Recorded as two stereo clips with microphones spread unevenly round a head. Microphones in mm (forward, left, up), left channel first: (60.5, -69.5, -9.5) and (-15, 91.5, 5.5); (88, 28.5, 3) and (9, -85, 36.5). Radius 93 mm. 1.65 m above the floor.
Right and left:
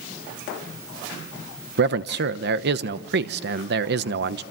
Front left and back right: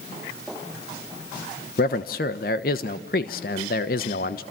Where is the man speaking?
105° left, 1.1 m.